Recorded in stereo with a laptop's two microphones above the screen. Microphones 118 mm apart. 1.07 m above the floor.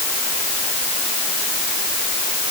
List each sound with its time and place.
Only background noise.